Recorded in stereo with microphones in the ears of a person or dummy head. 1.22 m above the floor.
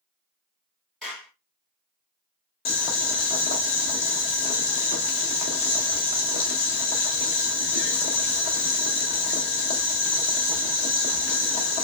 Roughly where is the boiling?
Left.